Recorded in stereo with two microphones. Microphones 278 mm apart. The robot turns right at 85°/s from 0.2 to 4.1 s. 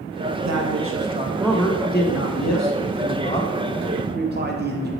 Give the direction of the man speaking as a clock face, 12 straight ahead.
3 o'clock.